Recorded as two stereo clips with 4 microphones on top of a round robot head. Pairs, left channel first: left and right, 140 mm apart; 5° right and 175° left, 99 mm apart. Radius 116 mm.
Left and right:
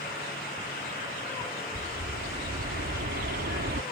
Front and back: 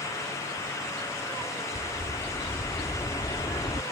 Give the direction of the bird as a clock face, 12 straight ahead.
2 o'clock.